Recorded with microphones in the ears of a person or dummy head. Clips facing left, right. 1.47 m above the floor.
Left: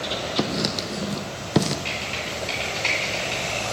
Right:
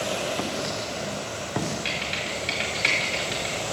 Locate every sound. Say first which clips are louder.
0.4 s writing: left 4 dB; 50° left (ahead or behind), 0.5 m
1.9 s typing on a keyboard: even; 20° right (ahead or behind), 1.8 m